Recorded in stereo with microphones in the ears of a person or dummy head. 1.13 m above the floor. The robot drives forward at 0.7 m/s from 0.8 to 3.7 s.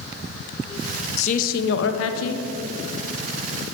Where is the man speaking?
45° left (ahead or behind), 0.9 m; by 2.4 s 70° left (ahead or behind), 0.7 m.